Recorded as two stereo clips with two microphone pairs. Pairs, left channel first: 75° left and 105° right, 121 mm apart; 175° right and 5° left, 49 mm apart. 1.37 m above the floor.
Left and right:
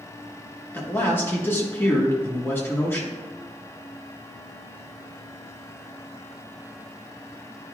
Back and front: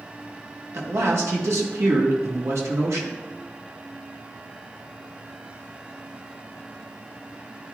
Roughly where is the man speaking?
Ahead.